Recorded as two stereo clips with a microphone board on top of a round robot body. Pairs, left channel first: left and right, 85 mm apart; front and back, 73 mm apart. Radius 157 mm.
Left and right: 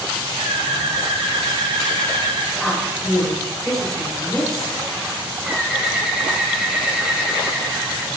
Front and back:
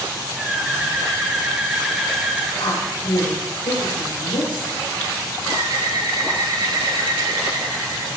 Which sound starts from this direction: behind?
A bird, at 5.4 s.